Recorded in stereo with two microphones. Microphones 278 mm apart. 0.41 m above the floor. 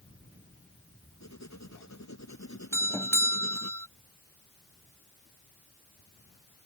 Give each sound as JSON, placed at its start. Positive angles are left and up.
{"t": 1.2, "sound": "writing", "side_deg": 75}
{"t": 2.7, "sound": "a doorbell", "side_deg": 10}